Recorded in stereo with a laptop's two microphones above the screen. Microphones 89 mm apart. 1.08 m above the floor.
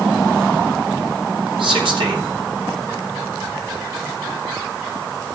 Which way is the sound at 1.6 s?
75° right (ahead or behind).